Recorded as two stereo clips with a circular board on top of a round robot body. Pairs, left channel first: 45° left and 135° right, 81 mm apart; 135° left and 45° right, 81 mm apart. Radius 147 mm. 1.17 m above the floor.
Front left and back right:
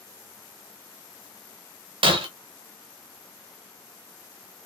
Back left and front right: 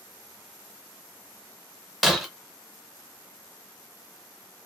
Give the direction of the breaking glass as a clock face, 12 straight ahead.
5 o'clock.